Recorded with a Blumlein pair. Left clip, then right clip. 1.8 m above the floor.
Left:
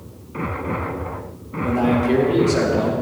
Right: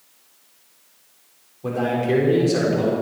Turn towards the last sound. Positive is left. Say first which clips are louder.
# left 3 dB
turn(degrees=0)